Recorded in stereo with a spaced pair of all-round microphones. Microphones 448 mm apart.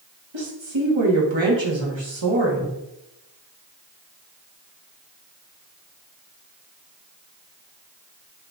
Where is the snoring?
I don't hear snoring.